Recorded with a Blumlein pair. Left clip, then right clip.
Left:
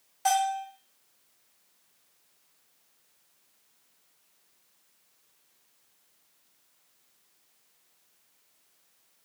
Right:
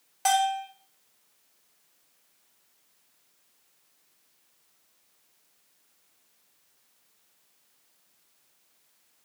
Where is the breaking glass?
No breaking glass in this recording.